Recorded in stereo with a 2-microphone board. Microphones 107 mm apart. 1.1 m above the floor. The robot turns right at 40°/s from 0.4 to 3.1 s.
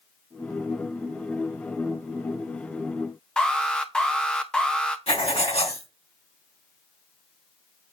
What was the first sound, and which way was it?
An alarm, 10° left (ahead or behind).